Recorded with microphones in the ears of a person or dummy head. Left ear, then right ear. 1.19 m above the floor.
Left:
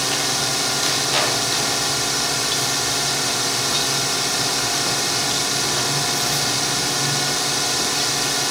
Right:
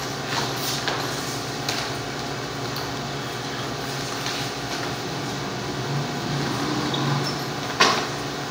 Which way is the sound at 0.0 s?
70° left (ahead or behind).